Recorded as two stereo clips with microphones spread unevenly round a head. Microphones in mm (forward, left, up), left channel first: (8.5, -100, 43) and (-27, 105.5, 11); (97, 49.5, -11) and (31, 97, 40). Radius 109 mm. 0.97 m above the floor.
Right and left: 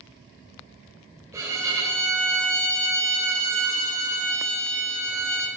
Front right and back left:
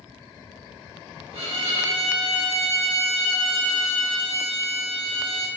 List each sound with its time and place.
1.3 s a violin: 175° left, 3 m